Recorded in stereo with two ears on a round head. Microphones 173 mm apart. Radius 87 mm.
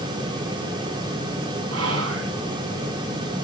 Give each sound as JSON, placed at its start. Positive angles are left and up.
{"t": 1.7, "sound": "whispering", "side_deg": -85, "distance_m": 6.0}